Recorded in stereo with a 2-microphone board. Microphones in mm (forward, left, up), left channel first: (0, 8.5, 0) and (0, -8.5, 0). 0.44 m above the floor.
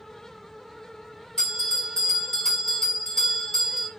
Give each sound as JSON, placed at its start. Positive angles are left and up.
{"t": 1.4, "sound": "a bell", "side_deg": 45, "distance_m": 1.7}